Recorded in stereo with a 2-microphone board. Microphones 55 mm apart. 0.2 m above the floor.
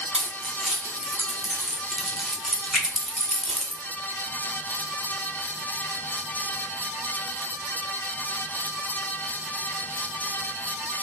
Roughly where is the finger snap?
Centre.